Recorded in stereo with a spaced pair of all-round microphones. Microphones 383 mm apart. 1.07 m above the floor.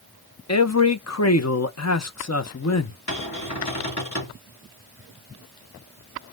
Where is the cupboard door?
45° left (ahead or behind), 2.5 m.